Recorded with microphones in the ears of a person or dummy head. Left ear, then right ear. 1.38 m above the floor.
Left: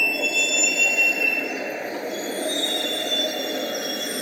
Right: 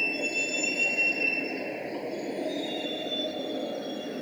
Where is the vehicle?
35° left (ahead or behind); by 4.2 s 70° left (ahead or behind).